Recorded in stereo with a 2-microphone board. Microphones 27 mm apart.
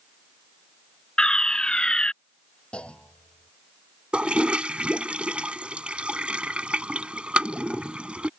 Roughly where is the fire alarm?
Left.